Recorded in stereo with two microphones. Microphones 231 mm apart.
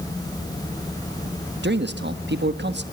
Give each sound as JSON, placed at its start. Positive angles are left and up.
{"t": 1.6, "sound": "a man speaking", "side_deg": -50, "distance_m": 1.3}